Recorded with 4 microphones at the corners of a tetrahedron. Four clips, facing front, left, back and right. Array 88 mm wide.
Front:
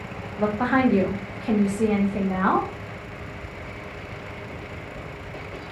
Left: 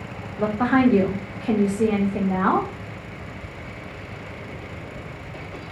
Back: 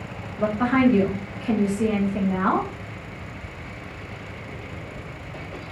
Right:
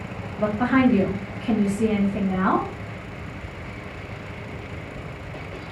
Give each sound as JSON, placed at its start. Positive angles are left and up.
{"t": 0.4, "sound": "a woman speaking", "azimuth_deg": 45, "distance_m": 1.0}